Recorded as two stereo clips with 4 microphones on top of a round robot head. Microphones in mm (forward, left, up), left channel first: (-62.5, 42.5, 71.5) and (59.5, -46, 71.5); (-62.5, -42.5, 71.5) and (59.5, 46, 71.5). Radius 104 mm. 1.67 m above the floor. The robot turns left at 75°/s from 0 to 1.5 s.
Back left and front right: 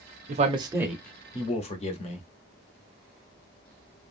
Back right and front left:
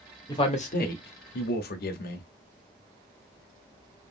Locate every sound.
0.3 s a man speaking: 75° right, 0.7 m; by 2.2 s 165° right, 0.7 m